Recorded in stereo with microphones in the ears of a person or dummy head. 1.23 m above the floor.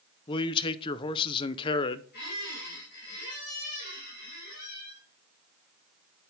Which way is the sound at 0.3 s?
25° left (ahead or behind).